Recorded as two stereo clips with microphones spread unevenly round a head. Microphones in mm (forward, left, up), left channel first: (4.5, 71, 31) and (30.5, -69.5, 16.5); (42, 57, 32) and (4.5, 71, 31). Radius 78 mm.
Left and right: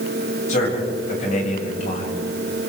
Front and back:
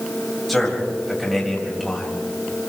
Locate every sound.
0.5 s a man speaking: 70° left, 8.5 m